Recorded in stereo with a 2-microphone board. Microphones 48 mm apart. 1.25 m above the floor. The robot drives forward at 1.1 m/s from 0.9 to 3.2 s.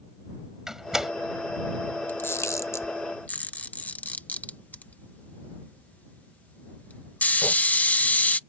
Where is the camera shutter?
45° left (ahead or behind); by 8.4 s 35° left (ahead or behind).